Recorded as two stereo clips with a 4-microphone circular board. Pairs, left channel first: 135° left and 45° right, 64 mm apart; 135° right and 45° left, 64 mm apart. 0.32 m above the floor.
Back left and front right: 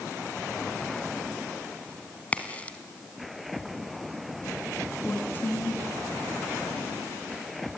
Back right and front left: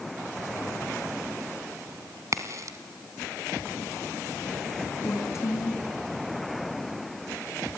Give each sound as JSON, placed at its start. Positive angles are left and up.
{"t": 2.3, "sound": "a crack", "azimuth_deg": 70, "distance_m": 1.9}
{"t": 5.0, "sound": "a woman speaking", "azimuth_deg": -170, "distance_m": 4.0}